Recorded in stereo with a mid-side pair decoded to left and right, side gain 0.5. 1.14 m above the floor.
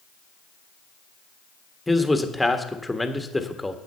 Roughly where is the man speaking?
Ahead.